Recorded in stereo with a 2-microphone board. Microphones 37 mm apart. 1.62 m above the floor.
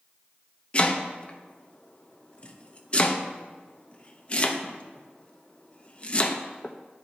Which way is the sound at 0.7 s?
30° left (ahead or behind).